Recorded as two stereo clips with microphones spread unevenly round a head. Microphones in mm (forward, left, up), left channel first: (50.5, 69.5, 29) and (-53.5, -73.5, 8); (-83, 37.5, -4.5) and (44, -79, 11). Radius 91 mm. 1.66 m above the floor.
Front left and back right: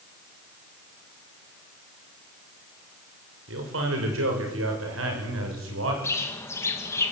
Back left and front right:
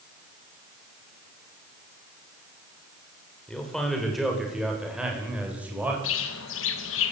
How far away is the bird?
About 2.5 m.